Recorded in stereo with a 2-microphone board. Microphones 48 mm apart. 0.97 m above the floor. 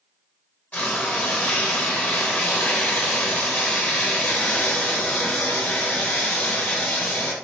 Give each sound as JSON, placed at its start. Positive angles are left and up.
{"t": 0.7, "sound": "frying", "side_deg": 30, "distance_m": 0.8}